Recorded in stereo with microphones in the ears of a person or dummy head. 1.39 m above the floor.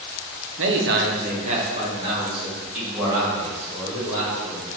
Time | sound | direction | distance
0.6 | a man speaking | 70° right (ahead or behind) | 1.1 m